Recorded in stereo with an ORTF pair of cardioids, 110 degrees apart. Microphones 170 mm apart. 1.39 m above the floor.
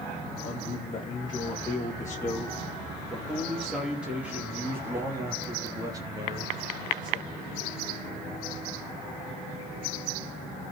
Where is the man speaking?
35° left, 2.5 m; by 7.8 s 30° right, 4 m.